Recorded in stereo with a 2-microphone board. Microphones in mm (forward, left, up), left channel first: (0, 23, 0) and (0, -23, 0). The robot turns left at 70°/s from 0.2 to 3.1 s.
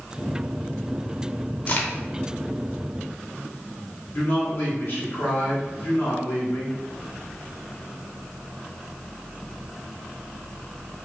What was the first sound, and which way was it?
A crack, 35° left (ahead or behind).